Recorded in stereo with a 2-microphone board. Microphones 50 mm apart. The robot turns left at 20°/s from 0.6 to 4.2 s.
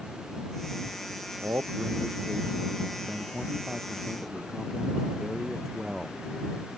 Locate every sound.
1.4 s a man speaking: 120° right; by 6.2 s 175° right